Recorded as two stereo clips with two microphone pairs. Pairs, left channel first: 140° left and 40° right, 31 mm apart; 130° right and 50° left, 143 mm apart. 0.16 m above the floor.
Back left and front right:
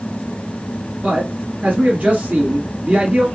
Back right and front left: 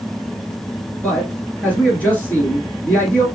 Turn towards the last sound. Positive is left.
turn(degrees=-55)